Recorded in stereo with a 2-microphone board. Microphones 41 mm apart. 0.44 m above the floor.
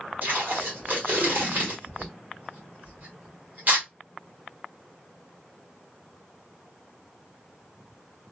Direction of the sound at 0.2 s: 45° right (ahead or behind).